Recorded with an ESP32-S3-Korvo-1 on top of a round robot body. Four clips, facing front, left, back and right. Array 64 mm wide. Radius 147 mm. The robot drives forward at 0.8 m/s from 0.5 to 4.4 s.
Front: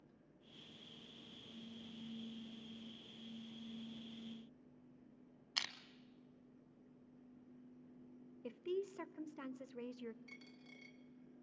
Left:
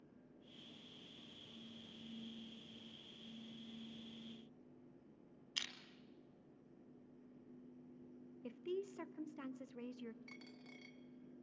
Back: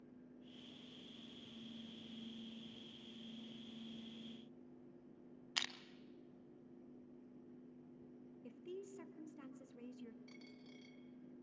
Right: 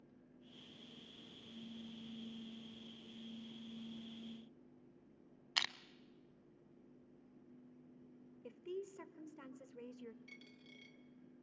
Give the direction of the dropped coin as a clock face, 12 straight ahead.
9 o'clock.